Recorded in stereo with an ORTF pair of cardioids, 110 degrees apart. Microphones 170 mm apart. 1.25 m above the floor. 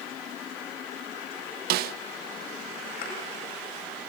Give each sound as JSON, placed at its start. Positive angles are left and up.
{"t": 1.7, "sound": "a snare drum", "azimuth_deg": -70, "distance_m": 0.7}
{"t": 3.0, "sound": "a thud", "azimuth_deg": 70, "distance_m": 9.0}